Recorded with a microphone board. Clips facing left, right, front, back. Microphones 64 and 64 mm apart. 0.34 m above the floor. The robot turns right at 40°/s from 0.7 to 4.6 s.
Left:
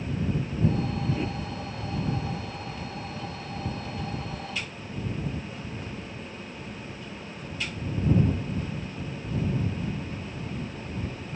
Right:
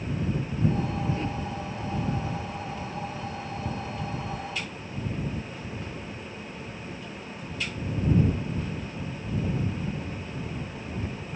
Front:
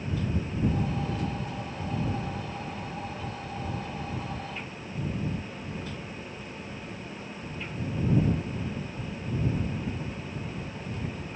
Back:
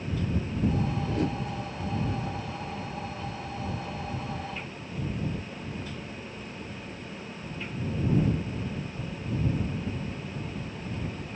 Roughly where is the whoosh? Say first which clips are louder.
Even, back 4 dB; behind.